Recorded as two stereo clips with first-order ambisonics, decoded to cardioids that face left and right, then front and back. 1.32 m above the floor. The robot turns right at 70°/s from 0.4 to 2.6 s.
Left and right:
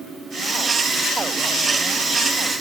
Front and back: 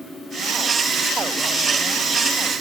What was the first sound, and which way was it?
Only background noise.